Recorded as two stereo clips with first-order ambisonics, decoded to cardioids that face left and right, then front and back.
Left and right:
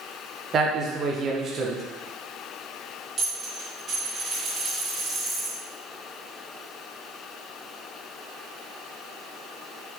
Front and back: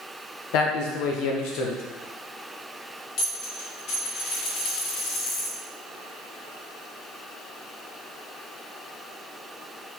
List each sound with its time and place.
0.5 s a man speaking: 25° right, 0.7 m
3.2 s a dropped coin: 30° right, 1.4 m